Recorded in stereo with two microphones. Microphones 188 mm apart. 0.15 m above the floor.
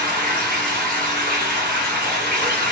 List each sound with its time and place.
0.0 s running water: 50° right (ahead or behind), 1.5 m